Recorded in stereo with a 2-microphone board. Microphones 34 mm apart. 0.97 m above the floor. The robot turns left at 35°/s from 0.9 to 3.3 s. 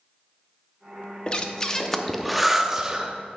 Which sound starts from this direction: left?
Breathing, at 1.3 s.